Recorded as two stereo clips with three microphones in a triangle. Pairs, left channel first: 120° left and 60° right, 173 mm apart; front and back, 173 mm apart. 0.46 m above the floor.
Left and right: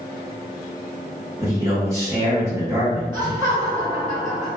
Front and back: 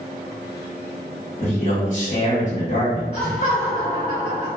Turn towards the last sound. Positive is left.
turn(degrees=0)